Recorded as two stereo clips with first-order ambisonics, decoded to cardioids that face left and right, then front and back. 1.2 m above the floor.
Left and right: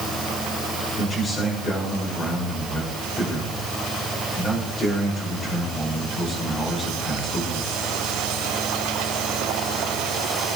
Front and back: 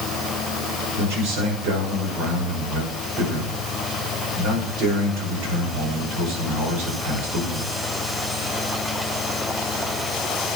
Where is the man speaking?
155° left, 6 m.